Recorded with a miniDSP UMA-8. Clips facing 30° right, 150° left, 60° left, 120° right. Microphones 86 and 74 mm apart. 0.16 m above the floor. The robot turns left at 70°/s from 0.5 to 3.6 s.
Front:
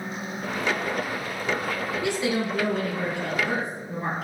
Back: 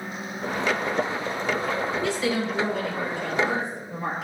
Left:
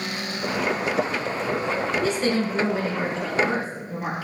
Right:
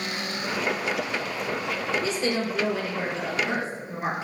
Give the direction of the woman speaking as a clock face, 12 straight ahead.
10 o'clock.